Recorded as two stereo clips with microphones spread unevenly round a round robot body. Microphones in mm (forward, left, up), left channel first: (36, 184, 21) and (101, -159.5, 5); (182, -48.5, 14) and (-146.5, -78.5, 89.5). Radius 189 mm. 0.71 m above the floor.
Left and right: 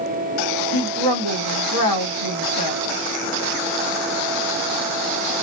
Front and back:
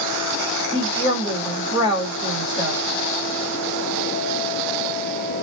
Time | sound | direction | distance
0.7 | a woman speaking | 100° left | 1.4 m